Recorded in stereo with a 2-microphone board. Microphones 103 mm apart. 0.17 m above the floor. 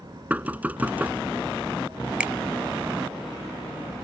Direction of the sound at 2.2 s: 15° right (ahead or behind).